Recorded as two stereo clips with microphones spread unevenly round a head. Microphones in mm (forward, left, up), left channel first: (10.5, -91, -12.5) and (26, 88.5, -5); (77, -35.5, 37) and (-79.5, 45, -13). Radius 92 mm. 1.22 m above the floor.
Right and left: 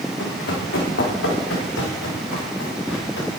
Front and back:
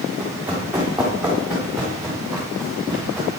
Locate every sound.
0.2 s running footsteps: 120° right, 4 m; by 3.3 s 115° right, 5.5 m